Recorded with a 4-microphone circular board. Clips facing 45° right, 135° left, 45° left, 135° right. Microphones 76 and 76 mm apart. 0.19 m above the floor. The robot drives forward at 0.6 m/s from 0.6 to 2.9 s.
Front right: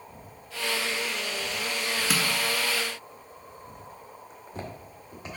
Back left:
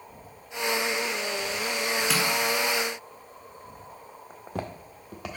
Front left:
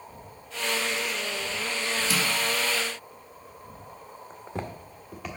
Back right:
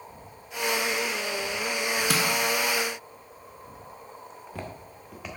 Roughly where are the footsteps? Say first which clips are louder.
Back left 5 dB, front left 4 dB; left.